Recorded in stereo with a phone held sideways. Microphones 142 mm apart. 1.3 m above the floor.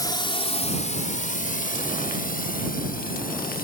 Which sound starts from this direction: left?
A drone, at 0.0 s.